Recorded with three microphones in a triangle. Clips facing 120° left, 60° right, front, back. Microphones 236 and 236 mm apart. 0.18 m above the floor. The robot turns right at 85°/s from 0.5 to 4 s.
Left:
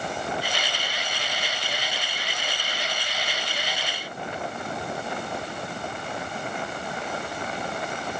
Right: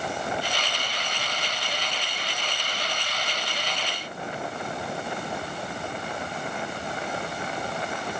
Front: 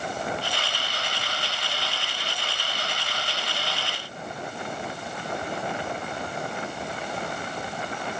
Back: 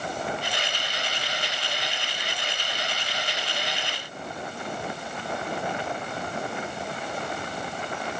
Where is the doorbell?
I don't hear a doorbell.